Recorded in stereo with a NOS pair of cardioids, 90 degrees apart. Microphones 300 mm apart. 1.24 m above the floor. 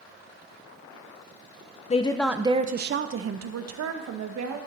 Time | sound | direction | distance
1.9 | a woman speaking | 25° left | 0.5 m